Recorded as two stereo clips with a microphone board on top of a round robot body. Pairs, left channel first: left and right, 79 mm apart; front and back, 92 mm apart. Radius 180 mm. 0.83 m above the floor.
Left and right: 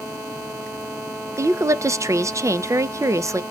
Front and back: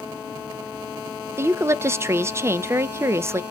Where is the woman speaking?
125° right, 0.5 m.